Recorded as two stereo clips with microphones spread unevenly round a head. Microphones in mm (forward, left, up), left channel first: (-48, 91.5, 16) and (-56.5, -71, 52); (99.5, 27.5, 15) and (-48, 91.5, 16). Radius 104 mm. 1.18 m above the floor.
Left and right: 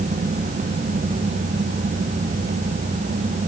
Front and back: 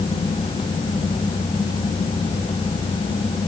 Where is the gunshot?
No gunshot in this recording.